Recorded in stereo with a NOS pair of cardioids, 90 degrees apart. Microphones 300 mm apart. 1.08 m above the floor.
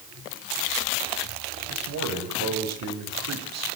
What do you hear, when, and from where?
1.7 s a man speaking: 60° right, 7.5 m